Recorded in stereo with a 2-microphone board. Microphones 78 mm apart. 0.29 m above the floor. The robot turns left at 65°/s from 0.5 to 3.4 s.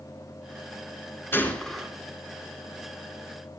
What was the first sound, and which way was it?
A gunshot, 30° left.